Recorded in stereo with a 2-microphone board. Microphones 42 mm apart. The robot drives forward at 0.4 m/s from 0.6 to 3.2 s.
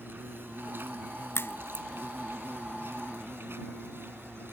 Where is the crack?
75° left (ahead or behind); by 1.9 s 80° left.